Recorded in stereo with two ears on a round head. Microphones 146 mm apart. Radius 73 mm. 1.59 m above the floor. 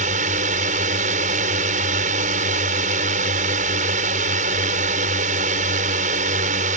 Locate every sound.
0.0 s a drone: 55° right (ahead or behind)